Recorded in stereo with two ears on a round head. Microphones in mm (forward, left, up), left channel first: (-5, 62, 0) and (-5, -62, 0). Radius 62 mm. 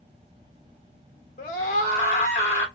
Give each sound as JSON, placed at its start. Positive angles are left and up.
{"t": 1.4, "sound": "a scream", "side_deg": 55, "distance_m": 1.0}